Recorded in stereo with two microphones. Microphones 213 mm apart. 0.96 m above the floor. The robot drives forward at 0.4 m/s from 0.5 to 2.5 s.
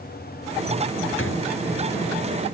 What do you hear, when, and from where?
1.2 s a door slam: 75° left (ahead or behind)